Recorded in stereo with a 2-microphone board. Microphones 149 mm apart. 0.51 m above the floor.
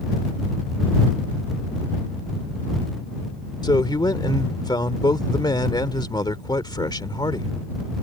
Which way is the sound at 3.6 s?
30° left (ahead or behind).